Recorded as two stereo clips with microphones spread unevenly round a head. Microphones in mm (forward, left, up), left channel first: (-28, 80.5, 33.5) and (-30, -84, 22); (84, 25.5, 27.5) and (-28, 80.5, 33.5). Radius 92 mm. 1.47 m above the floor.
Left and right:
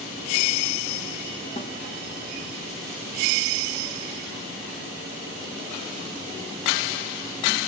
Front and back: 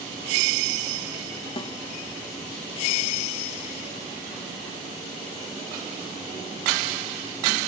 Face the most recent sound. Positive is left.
turn(degrees=25)